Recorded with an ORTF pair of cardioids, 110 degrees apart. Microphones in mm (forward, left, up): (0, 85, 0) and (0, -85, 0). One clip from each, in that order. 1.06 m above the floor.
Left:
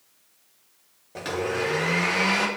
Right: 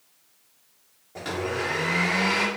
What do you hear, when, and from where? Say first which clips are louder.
1.1 s a blender: left 2 dB; 25° left, 1.5 m